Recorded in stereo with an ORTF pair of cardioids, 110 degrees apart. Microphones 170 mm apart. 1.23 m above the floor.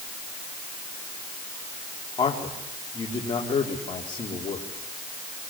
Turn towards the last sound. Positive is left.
turn(degrees=25)